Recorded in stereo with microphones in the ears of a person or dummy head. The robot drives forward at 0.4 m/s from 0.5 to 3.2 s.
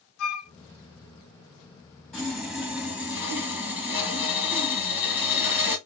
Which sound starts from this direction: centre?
Sawing, at 2.1 s.